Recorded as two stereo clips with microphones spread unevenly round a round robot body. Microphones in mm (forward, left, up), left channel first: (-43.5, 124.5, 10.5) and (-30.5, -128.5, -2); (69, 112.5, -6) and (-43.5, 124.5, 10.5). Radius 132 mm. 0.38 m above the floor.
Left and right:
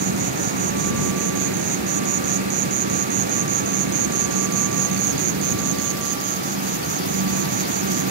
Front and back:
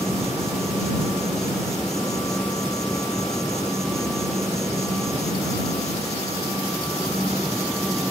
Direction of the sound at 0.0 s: 100° right.